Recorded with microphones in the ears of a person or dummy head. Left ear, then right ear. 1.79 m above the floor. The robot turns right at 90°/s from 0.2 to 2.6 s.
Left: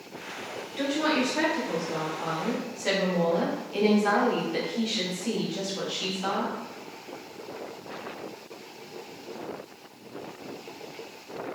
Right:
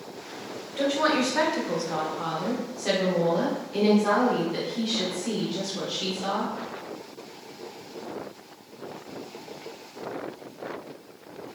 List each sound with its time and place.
0.8 s a woman speaking: 170° right, 0.9 m; by 6.5 s 5° right, 0.9 m